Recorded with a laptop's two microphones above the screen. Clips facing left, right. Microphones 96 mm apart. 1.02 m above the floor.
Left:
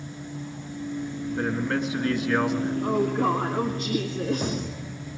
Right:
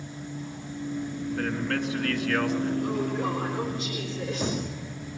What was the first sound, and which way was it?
A man speaking, 30° left (ahead or behind).